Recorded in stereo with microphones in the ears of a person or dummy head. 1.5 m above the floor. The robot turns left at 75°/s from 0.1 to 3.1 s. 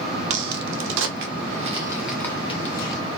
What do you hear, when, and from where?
0.3 s a crack: 45° right (ahead or behind), 0.7 m; by 3.0 s 65° left (ahead or behind), 0.7 m